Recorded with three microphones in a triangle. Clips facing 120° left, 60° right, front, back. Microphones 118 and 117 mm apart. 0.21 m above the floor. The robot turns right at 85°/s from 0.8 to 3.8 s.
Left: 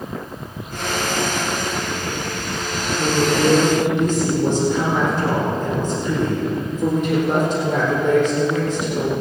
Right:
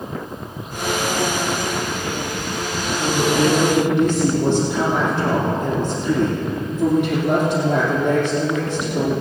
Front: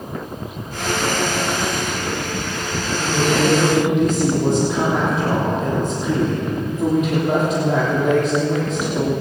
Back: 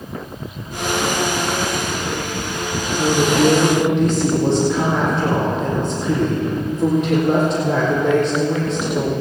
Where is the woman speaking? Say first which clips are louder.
Even, back 3 dB; 140° right, 6 m; by 9.1 s 75° right, 6 m.